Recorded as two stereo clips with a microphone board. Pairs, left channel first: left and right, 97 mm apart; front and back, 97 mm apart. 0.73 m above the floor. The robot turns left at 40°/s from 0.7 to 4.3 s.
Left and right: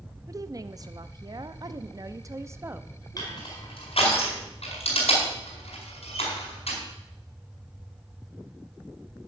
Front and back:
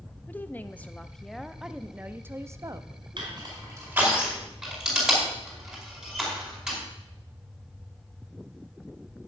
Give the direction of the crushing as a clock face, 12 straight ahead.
7 o'clock.